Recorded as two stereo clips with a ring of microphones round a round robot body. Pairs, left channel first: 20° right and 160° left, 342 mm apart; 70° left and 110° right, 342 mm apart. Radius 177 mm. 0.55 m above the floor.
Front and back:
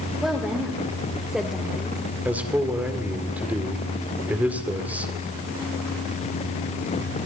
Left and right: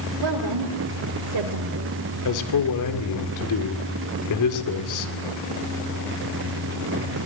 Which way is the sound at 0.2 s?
115° right.